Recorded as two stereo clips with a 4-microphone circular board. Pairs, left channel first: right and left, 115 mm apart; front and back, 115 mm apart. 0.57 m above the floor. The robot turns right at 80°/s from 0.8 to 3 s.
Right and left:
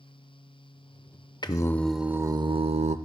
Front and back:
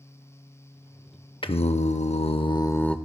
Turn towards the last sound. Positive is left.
turn(degrees=85)